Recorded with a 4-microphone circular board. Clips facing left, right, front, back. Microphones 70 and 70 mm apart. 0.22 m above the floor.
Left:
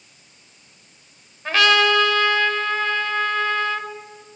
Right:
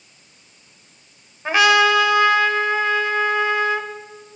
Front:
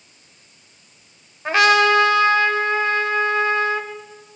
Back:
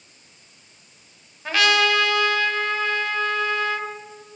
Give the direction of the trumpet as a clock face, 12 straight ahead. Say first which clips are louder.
Right 2 dB, front 5 dB; 1 o'clock.